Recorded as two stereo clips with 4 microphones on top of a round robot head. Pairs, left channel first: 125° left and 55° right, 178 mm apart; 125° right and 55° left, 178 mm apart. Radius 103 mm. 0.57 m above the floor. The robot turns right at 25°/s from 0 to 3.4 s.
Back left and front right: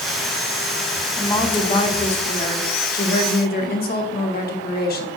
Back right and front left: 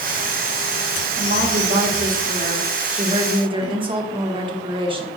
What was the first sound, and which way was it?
A woman speaking, 55° left.